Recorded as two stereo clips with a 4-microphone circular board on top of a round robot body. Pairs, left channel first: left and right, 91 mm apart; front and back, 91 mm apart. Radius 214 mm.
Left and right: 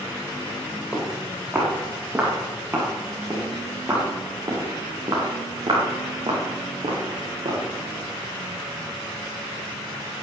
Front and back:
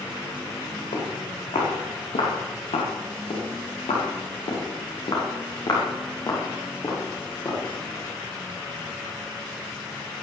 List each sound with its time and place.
0.9 s footsteps: 15° right, 6.5 m; by 7.6 s 60° right, 5 m